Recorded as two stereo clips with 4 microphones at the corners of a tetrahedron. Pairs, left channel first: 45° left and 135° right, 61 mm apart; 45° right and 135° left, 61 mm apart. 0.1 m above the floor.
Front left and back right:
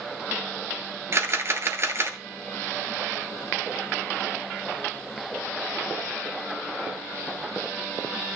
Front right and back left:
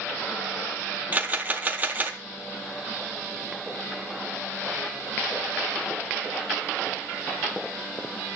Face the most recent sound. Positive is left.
turn(degrees=-170)